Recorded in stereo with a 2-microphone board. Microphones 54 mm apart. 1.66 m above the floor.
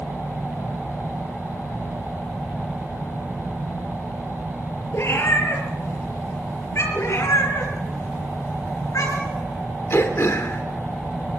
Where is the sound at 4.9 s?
55° left (ahead or behind), 5.5 m.